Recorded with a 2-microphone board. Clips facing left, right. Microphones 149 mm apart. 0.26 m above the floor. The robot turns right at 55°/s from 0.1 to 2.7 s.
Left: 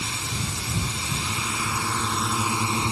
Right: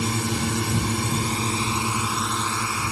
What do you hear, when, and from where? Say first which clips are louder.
0.0 s a drone: right 8 dB; 115° right; by 2.9 s 25° left